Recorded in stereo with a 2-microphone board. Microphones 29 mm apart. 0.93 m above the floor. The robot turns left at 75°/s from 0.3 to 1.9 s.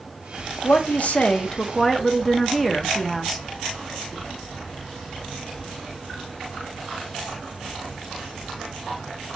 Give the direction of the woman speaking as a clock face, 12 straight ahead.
9 o'clock.